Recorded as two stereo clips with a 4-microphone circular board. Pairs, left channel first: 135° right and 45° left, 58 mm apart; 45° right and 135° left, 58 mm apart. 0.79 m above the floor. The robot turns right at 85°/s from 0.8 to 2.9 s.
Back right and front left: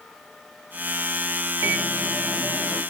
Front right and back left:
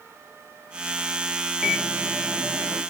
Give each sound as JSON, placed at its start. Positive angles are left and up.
{"t": 1.6, "sound": "a microwave", "azimuth_deg": 50, "distance_m": 1.7}